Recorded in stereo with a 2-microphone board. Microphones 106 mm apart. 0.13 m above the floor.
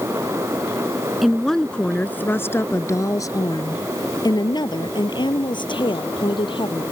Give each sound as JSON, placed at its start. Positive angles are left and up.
{"t": 1.2, "sound": "a woman speaking", "side_deg": 0}